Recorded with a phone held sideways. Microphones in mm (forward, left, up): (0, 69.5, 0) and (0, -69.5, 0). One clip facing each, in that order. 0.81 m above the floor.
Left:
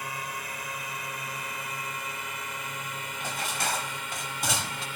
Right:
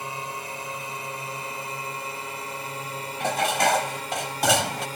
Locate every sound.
0.0 s a drone: 25° right (ahead or behind); by 5.0 s 40° right (ahead or behind)
3.2 s dishes clattering: 85° right